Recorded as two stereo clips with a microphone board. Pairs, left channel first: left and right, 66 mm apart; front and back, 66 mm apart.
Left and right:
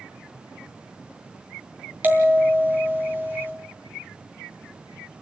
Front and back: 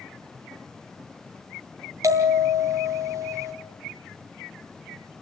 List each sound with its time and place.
2.0 s a bell: 150° right, 3 m